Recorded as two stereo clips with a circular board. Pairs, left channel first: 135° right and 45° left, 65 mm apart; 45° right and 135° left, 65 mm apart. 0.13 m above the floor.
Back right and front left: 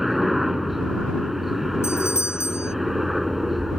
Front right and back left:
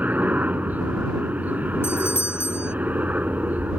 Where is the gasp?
No gasp in this recording.